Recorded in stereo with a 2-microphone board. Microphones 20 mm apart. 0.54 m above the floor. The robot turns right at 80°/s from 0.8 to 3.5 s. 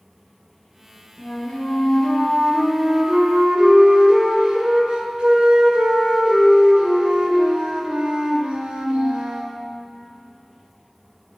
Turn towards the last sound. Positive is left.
turn(degrees=-110)